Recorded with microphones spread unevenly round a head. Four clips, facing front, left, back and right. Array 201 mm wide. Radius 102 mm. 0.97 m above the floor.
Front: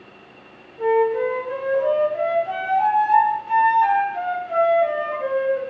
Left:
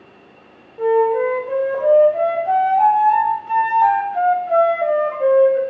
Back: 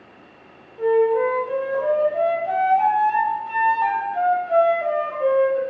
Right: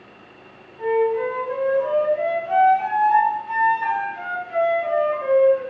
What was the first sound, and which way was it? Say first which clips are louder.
A flute: left 4 dB, back 1 dB; 100° left.